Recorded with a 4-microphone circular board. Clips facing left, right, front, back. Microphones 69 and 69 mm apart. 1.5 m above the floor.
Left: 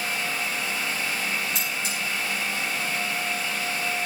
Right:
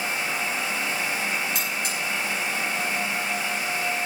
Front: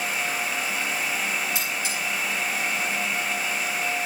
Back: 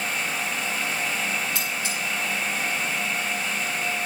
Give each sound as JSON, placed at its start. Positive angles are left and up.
{"t": 1.6, "sound": "cutlery clinking", "azimuth_deg": -70, "distance_m": 10.0}